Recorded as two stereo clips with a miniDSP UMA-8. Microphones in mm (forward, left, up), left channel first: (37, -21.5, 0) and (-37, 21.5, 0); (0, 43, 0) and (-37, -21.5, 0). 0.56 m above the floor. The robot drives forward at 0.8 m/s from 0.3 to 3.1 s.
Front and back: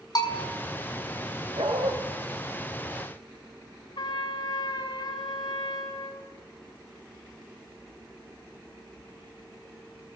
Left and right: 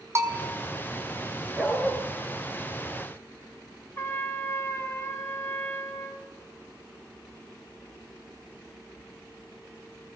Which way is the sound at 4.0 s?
5° right.